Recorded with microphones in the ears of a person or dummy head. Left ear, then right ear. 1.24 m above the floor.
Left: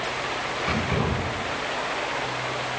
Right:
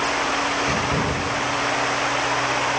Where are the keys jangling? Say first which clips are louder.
Right 4 dB; 65° right (ahead or behind), 7.5 m.